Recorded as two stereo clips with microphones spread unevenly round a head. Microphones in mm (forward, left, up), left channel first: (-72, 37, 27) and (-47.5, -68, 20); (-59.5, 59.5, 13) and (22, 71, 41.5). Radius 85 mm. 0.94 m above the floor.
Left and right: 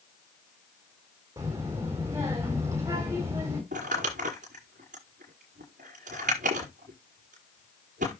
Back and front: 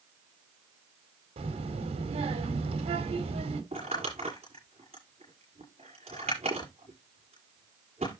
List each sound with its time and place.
1.4 s a child speaking: 5° right, 2 m
3.7 s crumpling: 40° right, 6.5 m